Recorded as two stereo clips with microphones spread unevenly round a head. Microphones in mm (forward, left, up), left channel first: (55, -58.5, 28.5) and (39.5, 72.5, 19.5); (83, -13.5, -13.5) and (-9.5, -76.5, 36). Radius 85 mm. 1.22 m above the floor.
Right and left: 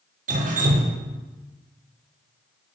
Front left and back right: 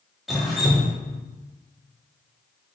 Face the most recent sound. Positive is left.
turn(degrees=115)